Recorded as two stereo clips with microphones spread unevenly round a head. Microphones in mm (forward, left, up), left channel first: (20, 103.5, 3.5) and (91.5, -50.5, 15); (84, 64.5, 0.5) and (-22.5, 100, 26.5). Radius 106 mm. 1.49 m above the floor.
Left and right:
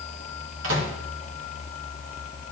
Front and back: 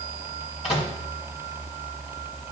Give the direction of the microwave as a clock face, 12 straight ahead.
3 o'clock.